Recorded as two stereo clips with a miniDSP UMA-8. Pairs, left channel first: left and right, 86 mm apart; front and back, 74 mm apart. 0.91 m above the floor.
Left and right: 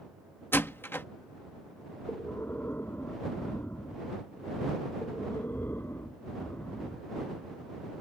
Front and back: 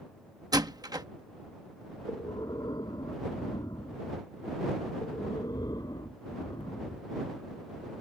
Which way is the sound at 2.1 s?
25° left.